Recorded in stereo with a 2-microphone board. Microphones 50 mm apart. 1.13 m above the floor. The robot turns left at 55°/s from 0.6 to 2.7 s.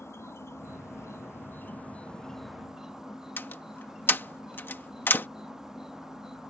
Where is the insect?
105° left; by 6.5 s 10° right.